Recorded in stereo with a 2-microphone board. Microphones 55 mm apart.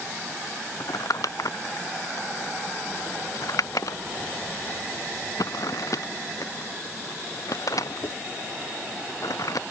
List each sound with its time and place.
0.8 s crumpling: 85° left